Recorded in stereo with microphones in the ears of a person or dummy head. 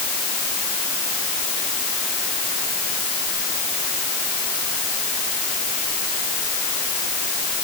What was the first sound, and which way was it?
Only background noise.